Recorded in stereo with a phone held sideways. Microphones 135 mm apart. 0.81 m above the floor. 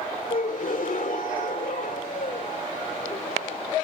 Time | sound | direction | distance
0.3 | a gasp | 70° left (ahead or behind) | ?